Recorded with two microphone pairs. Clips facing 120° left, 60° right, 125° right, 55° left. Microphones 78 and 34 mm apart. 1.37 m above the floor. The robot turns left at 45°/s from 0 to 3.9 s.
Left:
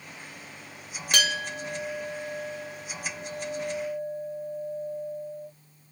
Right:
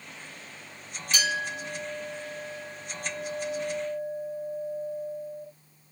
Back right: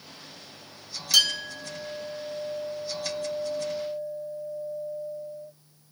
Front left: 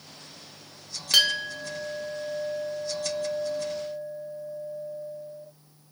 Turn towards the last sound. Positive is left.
turn(degrees=-30)